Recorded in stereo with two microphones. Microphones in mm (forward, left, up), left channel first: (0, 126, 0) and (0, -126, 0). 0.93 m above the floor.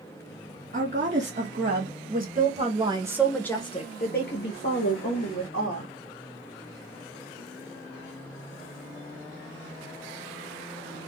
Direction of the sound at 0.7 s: 50° right (ahead or behind).